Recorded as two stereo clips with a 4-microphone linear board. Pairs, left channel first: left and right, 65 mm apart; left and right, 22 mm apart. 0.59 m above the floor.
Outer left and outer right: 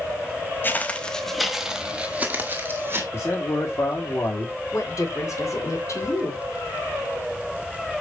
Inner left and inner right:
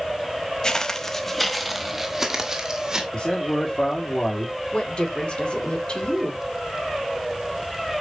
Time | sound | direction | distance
0.6 | footsteps | 30° left (ahead or behind) | 0.8 m
3.1 | a man speaking | 45° left (ahead or behind) | 1.7 m
4.7 | a woman speaking | 55° left (ahead or behind) | 1.9 m